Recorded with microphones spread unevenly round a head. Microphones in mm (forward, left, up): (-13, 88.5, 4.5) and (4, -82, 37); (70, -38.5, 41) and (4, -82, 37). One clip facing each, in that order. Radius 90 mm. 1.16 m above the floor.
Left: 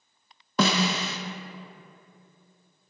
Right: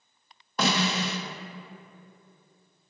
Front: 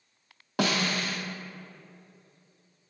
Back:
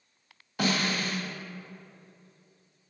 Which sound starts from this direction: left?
A snare drum, at 0.6 s.